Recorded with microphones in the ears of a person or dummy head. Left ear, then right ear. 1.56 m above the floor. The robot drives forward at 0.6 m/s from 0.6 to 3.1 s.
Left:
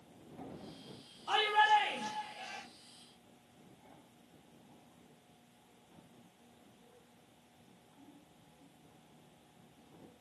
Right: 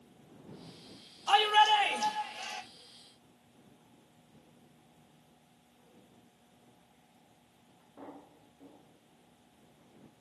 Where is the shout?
55° right (ahead or behind), 4 m; by 2.6 s 65° right (ahead or behind), 3.5 m.